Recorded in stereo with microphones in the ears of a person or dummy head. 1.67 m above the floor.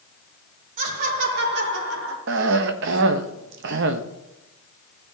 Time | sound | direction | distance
0.8 | laughter | 40° right (ahead or behind) | 3 m
2.3 | a cough | 65° right (ahead or behind) | 0.9 m